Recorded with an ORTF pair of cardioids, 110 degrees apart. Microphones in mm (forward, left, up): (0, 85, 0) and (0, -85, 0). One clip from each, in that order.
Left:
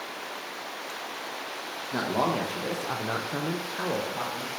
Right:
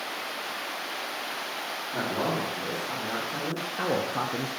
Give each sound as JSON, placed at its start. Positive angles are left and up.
{"t": 1.9, "sound": "a man speaking", "azimuth_deg": 70, "distance_m": 1.3}